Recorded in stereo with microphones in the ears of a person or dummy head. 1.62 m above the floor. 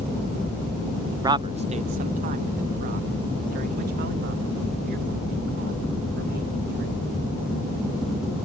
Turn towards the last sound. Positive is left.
turn(degrees=-60)  # may be behind; listen again after turning